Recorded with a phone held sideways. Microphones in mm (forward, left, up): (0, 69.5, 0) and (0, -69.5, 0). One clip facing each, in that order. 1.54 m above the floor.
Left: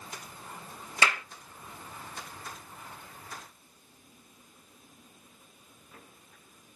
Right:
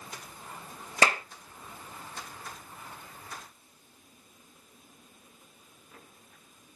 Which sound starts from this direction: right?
A clap, at 1.0 s.